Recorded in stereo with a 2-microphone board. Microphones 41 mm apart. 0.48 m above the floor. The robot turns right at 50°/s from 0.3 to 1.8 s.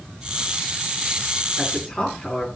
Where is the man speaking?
Centre (ahead or behind), 5.5 m; by 2.5 s 15° left (ahead or behind), 5.5 m.